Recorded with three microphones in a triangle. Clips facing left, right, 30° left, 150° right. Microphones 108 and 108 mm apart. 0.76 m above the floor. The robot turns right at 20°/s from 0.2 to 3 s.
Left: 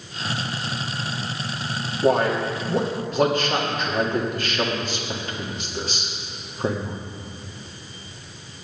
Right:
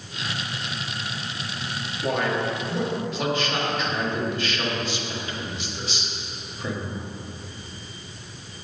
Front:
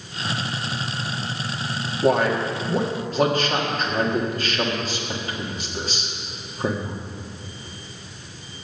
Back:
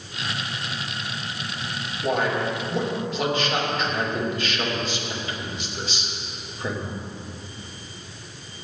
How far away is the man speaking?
About 1.5 m.